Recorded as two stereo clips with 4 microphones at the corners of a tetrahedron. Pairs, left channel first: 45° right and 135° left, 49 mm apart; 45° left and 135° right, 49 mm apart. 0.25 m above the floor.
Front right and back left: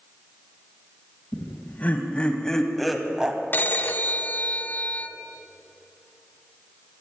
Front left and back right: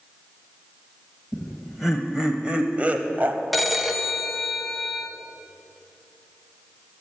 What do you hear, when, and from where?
1.3 s laughter: 35° right, 1.4 m; by 3.4 s 165° right, 1.3 m
3.5 s a phone ringing: 45° right, 1.0 m